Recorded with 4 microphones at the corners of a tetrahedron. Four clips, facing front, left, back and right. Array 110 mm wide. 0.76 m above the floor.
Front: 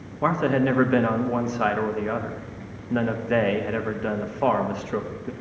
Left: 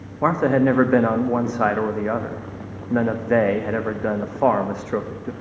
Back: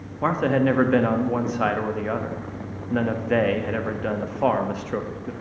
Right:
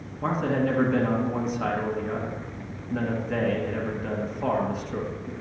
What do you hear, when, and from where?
0.2 s a man speaking: 95° left, 0.7 m